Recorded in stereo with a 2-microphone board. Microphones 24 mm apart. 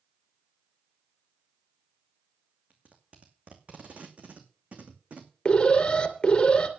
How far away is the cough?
I don't hear a cough.